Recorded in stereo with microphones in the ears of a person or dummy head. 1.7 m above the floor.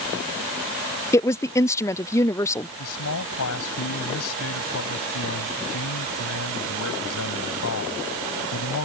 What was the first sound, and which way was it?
A woman speaking, 10° left (ahead or behind).